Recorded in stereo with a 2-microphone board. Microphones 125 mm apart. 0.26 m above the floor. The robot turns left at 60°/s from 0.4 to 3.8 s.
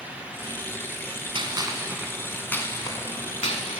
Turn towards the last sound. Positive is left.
turn(degrees=70)  # may be behind; listen again after turning